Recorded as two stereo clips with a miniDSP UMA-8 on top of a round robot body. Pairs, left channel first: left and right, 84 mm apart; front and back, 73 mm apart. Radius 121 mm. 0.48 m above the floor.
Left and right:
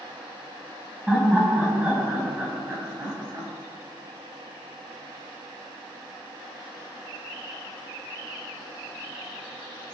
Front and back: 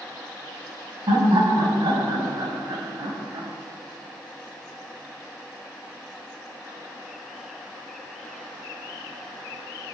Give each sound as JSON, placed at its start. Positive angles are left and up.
{"t": 1.1, "sound": "laughter", "azimuth_deg": -170, "distance_m": 4.5}